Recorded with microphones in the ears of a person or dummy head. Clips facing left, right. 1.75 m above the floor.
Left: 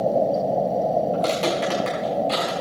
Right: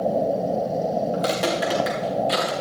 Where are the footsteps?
15° right (ahead or behind), 5 m; by 2.5 s 20° right (ahead or behind), 4.5 m.